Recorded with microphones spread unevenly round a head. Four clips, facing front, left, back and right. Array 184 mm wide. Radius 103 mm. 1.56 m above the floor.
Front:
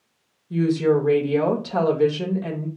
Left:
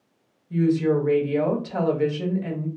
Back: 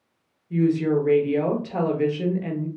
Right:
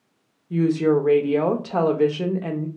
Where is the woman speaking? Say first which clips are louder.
Right 2 dB, front 1 dB; 75° right, 1.0 m.